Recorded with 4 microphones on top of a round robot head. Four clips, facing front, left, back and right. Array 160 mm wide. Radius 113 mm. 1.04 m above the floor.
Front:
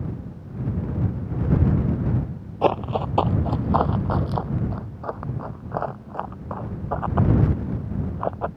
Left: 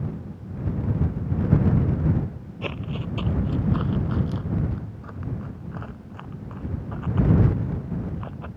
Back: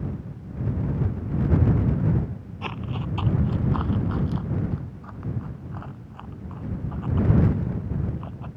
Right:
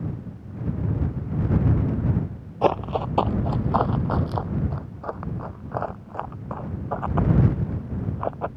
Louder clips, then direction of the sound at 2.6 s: Right 11 dB, front 12 dB; 45° right.